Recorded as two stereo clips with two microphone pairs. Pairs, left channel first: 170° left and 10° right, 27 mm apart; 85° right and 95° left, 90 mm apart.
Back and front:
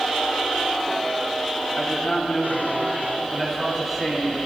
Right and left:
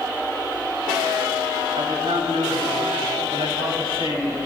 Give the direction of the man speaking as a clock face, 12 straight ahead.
9 o'clock.